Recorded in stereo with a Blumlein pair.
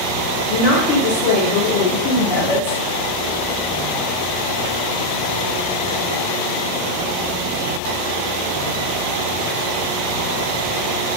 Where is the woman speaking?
40° left, 0.7 m.